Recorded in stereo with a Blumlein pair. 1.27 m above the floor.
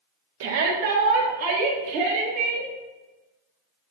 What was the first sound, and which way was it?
A shout, 55° right.